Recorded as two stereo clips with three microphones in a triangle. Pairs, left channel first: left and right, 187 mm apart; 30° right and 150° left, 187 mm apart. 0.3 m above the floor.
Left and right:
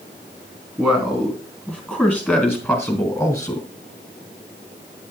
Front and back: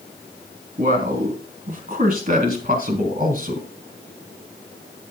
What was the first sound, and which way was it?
A man speaking, 170° right.